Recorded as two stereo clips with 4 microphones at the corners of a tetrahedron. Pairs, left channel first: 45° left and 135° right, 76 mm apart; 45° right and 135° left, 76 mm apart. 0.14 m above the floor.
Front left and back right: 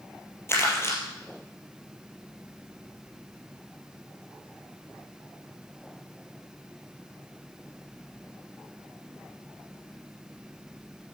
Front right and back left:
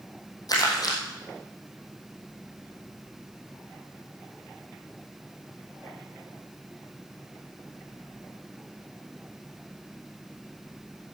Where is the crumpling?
10° right, 4 m.